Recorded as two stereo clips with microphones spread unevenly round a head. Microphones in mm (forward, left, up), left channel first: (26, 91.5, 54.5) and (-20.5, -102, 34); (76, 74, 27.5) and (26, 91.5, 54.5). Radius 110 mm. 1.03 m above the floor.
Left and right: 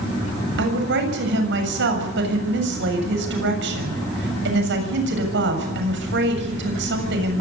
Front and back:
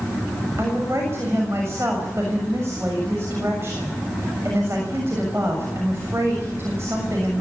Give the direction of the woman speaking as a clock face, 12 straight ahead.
4 o'clock.